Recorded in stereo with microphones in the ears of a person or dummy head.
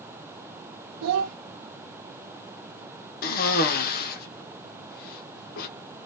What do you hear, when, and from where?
1.0 s a child speaking: 60° right (ahead or behind), 0.5 m
3.2 s a cough: 50° left (ahead or behind), 1.4 m